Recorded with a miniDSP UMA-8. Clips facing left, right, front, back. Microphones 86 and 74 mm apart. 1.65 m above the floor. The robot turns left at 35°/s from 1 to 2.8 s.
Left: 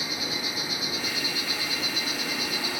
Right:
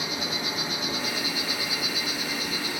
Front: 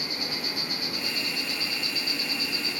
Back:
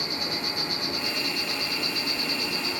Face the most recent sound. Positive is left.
turn(degrees=160)